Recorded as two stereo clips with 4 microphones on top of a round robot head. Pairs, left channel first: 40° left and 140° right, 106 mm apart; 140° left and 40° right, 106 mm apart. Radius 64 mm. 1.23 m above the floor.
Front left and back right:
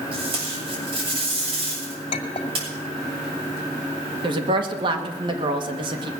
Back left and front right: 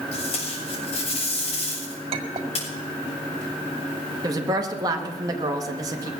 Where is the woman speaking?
95° right, 1.6 m.